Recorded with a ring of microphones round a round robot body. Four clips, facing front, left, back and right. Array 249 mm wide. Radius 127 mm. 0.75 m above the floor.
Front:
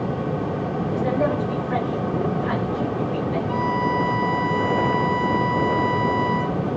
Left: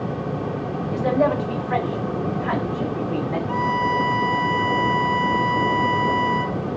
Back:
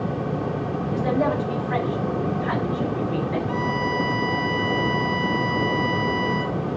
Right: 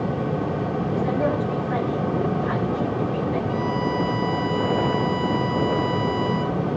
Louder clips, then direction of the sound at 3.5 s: Left 2 dB, front 2 dB; 105° left.